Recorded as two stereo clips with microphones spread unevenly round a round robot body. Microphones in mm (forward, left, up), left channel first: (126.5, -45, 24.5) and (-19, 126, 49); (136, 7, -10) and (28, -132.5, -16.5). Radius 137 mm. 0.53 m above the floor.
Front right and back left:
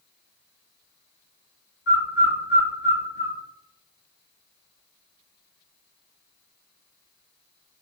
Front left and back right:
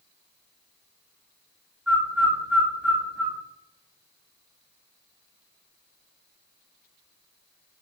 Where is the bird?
50° right, 1.4 m.